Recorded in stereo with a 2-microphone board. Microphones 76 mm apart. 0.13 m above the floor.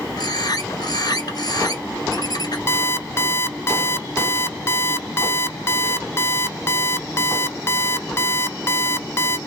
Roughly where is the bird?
Left.